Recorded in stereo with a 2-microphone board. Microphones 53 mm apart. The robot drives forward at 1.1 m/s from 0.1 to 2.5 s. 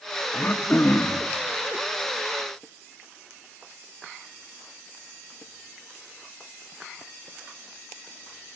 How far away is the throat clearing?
About 1.5 m.